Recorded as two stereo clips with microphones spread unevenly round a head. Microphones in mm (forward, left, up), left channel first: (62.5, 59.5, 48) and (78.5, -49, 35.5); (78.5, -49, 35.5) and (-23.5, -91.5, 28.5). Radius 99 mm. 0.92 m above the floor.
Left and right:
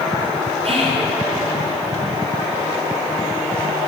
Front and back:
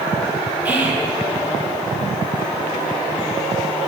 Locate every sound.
0.7 s whispering: 80° right, 2 m